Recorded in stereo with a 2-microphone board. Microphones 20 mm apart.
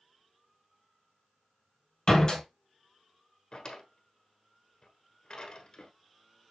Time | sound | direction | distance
2.1 | a door slam | 35° left (ahead or behind) | 2 m
3.5 | a drawer | 40° left (ahead or behind) | 1.0 m